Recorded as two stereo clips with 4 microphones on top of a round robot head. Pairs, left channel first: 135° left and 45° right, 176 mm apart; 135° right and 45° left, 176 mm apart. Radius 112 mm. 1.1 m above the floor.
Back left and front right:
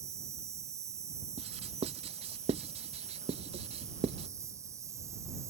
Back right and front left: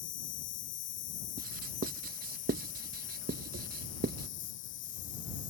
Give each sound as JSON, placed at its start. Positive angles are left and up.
{"t": 0.0, "sound": "an insect", "azimuth_deg": -120}
{"t": 1.4, "sound": "writing", "azimuth_deg": 10}